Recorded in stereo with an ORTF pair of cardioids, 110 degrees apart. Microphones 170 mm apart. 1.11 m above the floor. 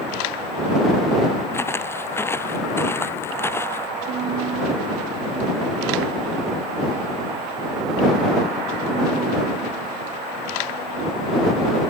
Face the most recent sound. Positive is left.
turn(degrees=-65)